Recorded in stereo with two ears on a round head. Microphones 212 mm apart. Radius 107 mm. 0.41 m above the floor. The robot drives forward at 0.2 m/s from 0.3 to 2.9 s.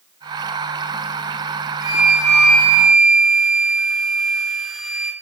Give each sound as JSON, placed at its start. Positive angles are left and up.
{"t": 1.8, "sound": "a flute", "side_deg": -5, "distance_m": 0.6}